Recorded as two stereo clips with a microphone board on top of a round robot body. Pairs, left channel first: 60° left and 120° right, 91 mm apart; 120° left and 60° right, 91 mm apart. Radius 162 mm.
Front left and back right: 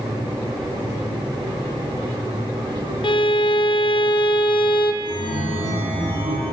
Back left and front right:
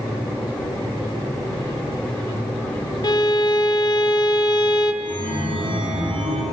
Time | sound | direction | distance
3.0 | a violin | 80° left | 0.7 m
5.0 | a chime | 90° right | 3 m